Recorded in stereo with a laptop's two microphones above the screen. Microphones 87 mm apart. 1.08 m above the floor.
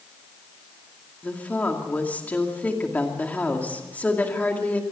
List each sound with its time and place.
1.2 s a woman speaking: 15° left (ahead or behind), 2.5 m